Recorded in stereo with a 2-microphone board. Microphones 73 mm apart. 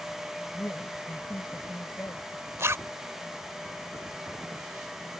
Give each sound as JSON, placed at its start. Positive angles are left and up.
{"t": 0.5, "sound": "a woman speaking", "side_deg": 35}
{"t": 2.6, "sound": "a zipper", "side_deg": -40}